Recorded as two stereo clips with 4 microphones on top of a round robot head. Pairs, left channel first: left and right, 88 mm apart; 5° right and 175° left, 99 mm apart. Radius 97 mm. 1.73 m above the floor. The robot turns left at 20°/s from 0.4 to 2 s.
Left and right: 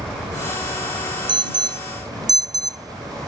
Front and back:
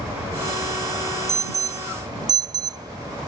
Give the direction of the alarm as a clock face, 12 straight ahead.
4 o'clock.